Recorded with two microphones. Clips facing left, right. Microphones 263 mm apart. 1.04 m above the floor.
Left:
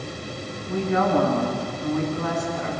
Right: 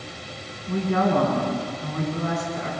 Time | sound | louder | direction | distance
0.7 | a woman speaking | even | 40° right (ahead or behind) | 9 m